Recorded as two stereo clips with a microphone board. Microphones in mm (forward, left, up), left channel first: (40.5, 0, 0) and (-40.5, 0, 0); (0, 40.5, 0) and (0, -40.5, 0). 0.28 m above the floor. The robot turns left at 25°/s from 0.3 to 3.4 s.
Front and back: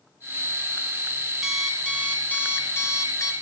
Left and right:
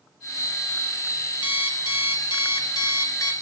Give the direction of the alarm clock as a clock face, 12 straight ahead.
9 o'clock.